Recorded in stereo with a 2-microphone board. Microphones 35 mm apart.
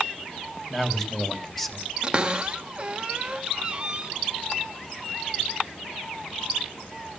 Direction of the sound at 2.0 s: 30° right (ahead or behind).